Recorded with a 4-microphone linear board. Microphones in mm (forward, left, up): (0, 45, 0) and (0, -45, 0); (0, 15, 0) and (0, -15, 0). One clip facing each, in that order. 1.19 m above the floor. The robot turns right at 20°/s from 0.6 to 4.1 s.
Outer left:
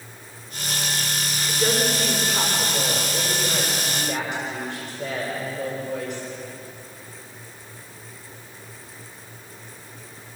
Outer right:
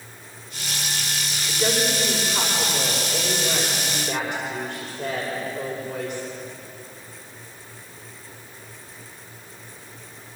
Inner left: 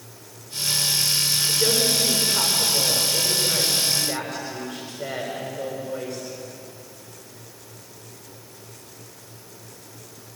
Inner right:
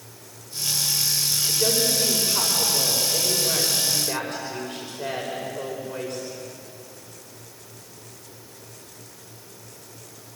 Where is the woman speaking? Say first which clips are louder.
Even, inner left 1 dB; 155° right, 5.5 m; by 6.2 s 105° right, 5.5 m.